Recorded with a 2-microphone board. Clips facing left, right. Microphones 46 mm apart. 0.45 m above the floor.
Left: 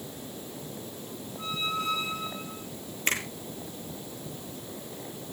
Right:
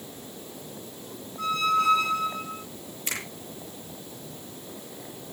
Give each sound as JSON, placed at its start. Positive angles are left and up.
{"t": 1.4, "sound": "a squeak", "side_deg": -70, "distance_m": 3.0}
{"t": 3.1, "sound": "a finger snap", "side_deg": 50, "distance_m": 8.0}